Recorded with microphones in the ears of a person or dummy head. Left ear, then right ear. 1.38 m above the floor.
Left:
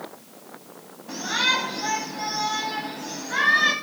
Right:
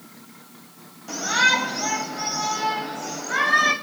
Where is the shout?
75° right (ahead or behind), 9 m; by 3.7 s 60° right (ahead or behind), 8.5 m.